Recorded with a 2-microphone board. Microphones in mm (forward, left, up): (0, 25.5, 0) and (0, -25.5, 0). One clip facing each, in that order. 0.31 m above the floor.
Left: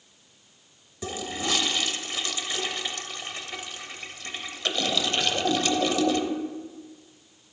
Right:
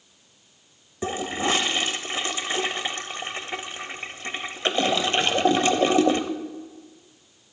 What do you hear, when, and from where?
1.0 s a toilet flushing: 35° right (ahead or behind), 0.8 m